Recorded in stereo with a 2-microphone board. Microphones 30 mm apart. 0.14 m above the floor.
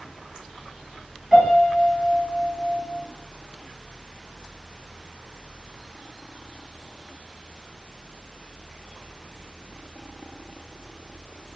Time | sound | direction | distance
1.3 | a piano | 30° right (ahead or behind) | 1.3 m